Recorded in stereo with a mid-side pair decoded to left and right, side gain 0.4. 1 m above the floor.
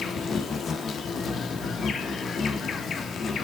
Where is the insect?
60° left, 1.2 m.